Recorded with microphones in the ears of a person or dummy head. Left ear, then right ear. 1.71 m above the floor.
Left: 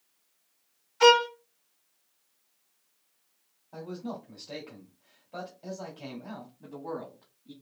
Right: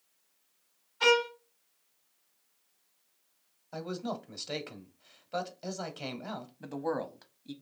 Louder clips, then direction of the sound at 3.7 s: Right 2 dB; 50° right (ahead or behind).